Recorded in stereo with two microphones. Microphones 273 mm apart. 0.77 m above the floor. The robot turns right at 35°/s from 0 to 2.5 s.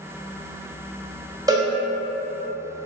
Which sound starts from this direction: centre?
A cowbell, at 1.5 s.